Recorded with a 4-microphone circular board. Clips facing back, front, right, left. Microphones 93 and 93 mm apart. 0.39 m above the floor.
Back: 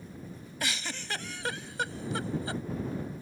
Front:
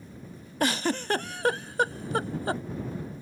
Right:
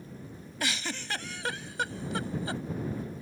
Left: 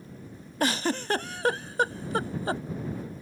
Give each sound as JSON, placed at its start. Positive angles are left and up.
{"t": 0.6, "sound": "a giggle", "azimuth_deg": 40}